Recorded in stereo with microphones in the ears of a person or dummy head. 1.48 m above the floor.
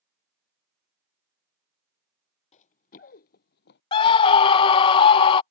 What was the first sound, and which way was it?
Running footsteps, 40° left (ahead or behind).